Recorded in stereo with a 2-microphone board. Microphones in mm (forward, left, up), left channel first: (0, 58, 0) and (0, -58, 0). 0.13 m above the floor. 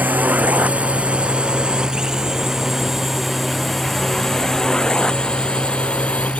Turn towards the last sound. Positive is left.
turn(degrees=10)  # may be behind; listen again after turning